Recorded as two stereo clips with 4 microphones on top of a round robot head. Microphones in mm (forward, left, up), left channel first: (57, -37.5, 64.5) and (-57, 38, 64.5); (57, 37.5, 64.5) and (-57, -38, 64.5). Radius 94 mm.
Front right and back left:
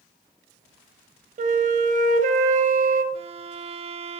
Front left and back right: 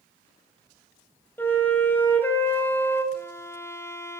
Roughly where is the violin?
Left.